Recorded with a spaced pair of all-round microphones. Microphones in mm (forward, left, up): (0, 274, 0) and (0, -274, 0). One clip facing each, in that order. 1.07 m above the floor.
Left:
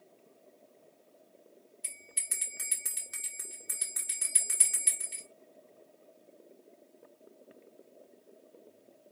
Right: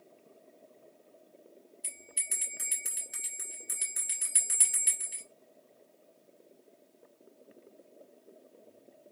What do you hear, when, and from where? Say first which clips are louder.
1.8 s a bell: right 3 dB; 30° left (ahead or behind), 1.0 m